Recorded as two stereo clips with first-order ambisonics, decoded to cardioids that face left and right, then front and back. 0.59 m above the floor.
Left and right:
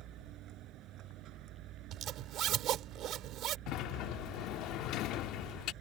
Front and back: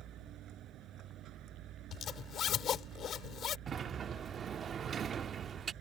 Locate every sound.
0.0 s a vehicle: 130° right
1.9 s a zipper: 50° right
3.7 s a sliding door: 115° left